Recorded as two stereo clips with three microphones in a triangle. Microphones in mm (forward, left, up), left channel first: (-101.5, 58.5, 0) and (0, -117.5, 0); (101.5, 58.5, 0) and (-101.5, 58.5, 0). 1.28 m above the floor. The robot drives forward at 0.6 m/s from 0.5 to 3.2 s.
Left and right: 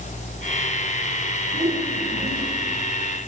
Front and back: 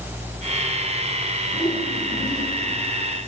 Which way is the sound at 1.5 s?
90° right.